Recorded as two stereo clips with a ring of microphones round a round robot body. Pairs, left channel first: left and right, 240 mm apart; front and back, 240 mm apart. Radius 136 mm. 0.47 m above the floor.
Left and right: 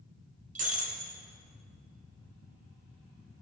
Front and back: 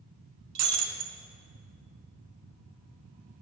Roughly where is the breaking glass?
Behind right.